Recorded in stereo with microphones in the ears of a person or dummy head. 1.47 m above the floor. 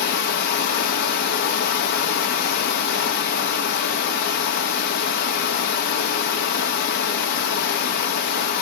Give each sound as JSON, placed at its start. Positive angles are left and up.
{"t": 0.0, "sound": "running water", "side_deg": 55, "distance_m": 0.8}